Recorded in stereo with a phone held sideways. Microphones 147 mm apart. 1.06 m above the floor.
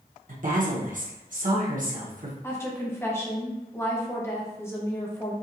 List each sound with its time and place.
0.3 s a woman speaking: 60° right (ahead or behind), 1.1 m
2.4 s a woman speaking: 15° left (ahead or behind), 0.9 m